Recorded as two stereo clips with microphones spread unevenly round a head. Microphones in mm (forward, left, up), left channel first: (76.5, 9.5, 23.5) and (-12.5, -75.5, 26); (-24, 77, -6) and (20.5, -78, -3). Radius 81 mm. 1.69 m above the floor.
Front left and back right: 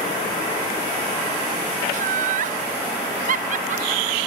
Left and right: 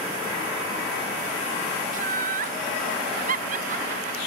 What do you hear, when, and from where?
1.9 s laughter: 115° right, 0.8 m